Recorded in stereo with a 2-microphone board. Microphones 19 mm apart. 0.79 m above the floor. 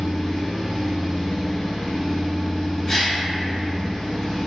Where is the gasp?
20° left (ahead or behind), 0.6 m.